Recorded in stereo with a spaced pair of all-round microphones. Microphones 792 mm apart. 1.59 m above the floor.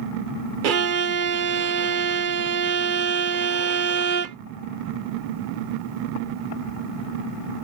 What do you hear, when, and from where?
0.6 s a violin: 75° right (ahead or behind)